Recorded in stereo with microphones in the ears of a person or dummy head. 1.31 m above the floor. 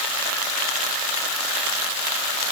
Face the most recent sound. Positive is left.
No sound to turn to.